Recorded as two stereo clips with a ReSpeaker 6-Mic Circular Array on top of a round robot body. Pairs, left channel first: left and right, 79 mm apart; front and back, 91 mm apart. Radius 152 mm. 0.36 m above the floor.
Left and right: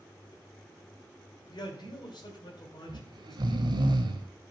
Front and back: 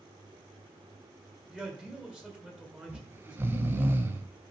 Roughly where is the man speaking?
Left.